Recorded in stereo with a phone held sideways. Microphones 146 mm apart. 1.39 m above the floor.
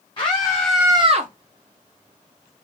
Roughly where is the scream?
Left.